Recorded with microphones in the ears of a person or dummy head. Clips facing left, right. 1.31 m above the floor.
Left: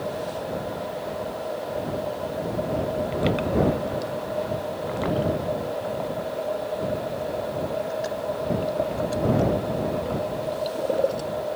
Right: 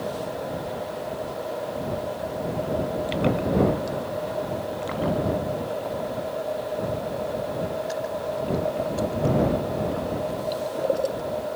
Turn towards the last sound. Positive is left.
No sound to turn to.